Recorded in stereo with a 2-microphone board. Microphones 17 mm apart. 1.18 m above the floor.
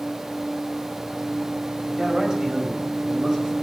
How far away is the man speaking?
About 5.5 m.